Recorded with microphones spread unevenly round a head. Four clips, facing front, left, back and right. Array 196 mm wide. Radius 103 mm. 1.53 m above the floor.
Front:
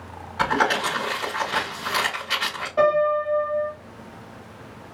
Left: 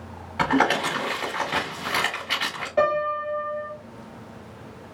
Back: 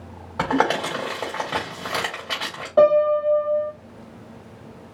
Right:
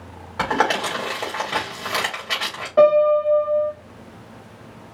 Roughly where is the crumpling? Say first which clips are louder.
Even, back 1 dB; behind right.